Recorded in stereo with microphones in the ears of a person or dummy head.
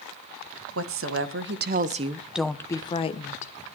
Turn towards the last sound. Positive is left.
turn(degrees=40)  # may be behind; listen again after turning